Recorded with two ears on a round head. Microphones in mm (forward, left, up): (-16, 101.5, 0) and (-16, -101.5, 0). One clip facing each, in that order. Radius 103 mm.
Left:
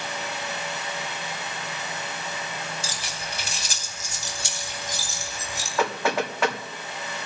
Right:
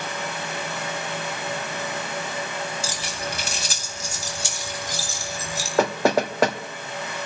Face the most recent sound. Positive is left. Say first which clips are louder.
# right 5 dB
turn(degrees=-35)  # may be behind; listen again after turning